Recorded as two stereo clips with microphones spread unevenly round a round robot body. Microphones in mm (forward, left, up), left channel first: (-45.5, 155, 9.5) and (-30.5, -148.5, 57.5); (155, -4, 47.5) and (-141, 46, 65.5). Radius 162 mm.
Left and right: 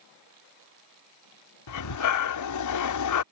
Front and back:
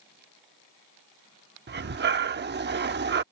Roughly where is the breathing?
Behind left.